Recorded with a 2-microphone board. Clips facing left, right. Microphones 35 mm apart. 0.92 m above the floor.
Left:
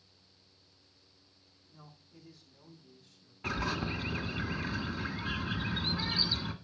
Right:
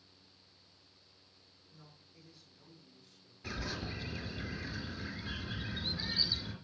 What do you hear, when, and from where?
1.7 s a man speaking: 70° left (ahead or behind), 8 m; by 3.3 s 50° left (ahead or behind), 7 m
3.4 s a bird: 65° left (ahead or behind), 1.7 m